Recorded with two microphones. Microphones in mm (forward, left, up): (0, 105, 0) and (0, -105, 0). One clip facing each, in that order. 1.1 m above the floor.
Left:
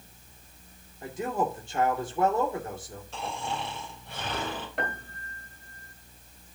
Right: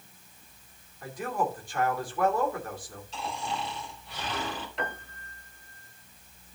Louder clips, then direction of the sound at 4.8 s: Left 1 dB; 55° left (ahead or behind).